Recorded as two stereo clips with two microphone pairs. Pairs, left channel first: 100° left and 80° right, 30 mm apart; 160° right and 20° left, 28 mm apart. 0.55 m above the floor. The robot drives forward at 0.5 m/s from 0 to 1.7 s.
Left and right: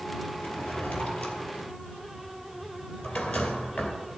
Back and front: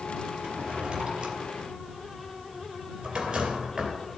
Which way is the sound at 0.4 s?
75° left.